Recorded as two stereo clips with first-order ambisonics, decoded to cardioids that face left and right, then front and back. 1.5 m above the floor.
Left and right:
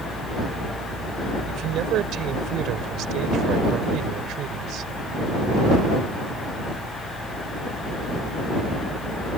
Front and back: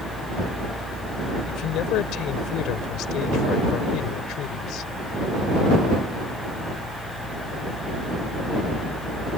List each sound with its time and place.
1.5 s a man speaking: 45° right